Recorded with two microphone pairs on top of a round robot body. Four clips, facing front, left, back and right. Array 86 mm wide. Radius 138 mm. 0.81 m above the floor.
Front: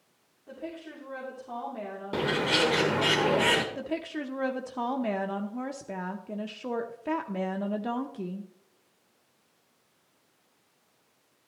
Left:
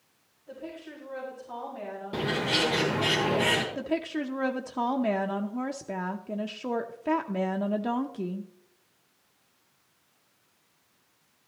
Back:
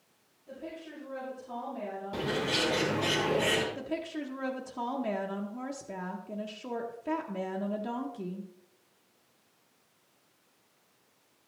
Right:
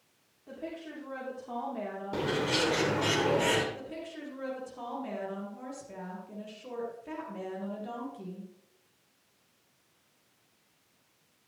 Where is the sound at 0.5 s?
45° right, 3 m.